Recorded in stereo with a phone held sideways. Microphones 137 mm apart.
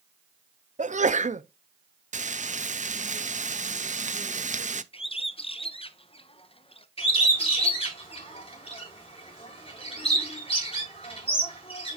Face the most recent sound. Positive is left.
turn(degrees=45)  # may be behind; listen again after turning